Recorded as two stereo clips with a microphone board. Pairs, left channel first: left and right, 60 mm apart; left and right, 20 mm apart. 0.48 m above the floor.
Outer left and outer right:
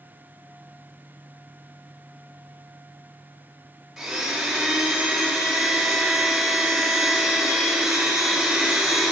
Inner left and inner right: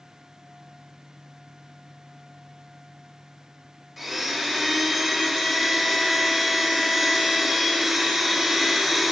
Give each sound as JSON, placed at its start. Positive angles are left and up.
{"t": 4.0, "sound": "a blender", "side_deg": -5, "distance_m": 1.5}